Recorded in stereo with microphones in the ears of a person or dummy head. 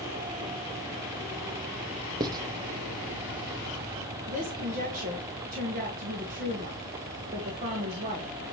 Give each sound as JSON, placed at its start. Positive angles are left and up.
{"t": 2.2, "sound": "writing", "side_deg": -25, "distance_m": 0.5}
{"t": 4.3, "sound": "a woman speaking", "side_deg": -50, "distance_m": 1.3}